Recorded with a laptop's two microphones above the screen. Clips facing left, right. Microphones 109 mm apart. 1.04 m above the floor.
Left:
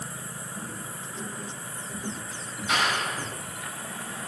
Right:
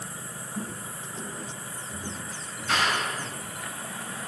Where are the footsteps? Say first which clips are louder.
Right 4 dB; 35° right (ahead or behind), 3 m; by 3.7 s 40° left (ahead or behind), 2.5 m.